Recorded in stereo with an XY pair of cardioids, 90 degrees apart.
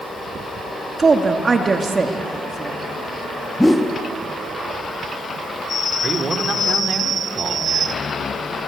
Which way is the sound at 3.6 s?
10° left.